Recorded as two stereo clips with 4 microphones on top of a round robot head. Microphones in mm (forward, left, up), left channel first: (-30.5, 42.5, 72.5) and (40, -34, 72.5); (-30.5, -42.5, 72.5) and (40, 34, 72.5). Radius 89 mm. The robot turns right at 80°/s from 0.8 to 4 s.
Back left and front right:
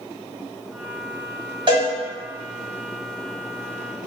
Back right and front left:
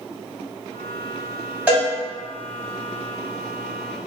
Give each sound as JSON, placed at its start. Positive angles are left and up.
{"t": 1.7, "sound": "a cowbell", "azimuth_deg": -25, "distance_m": 1.5}